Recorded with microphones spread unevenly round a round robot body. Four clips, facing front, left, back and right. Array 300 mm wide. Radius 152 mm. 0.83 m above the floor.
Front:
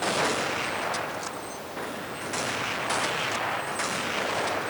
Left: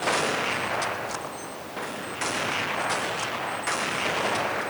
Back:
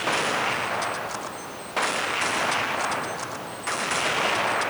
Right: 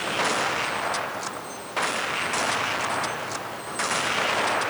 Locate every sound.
Only background noise.